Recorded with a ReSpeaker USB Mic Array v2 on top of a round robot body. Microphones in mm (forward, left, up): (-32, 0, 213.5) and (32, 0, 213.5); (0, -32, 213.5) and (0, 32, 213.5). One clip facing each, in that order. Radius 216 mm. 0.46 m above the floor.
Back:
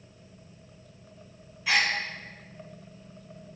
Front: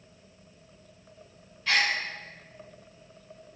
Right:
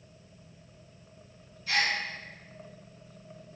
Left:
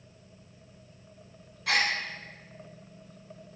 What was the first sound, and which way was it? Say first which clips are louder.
A gasp: even, left 1 dB; 100° left.